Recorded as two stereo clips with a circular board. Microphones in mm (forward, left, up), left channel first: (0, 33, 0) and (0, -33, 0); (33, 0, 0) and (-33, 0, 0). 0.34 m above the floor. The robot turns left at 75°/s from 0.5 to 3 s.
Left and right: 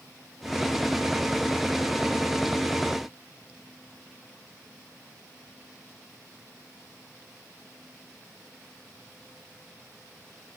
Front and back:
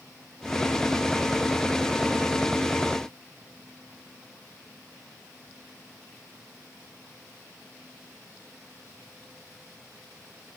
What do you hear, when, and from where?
Only background noise.